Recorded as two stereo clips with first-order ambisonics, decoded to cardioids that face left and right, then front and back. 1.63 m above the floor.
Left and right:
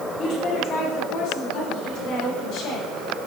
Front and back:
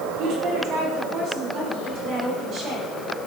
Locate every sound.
0.2 s a woman speaking: 145° left, 4.5 m; by 2.9 s 125° left, 6 m